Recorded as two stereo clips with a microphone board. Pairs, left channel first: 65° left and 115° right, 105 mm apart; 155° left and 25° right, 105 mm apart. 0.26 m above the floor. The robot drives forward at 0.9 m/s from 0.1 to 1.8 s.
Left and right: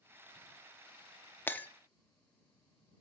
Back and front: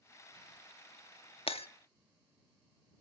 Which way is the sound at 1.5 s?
135° left.